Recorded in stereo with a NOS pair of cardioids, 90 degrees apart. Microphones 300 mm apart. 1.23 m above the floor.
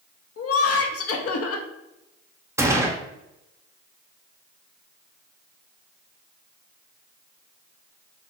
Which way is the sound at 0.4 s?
55° left.